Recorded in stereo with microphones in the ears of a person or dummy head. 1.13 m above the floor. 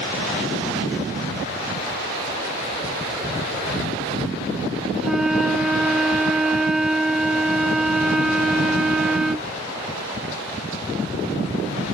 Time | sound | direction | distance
5.0 | a flute | 5° right (ahead or behind) | ?